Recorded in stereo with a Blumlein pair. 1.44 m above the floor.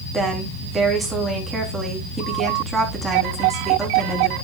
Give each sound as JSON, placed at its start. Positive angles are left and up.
{"t": 0.1, "sound": "a woman speaking", "azimuth_deg": -15, "distance_m": 3.5}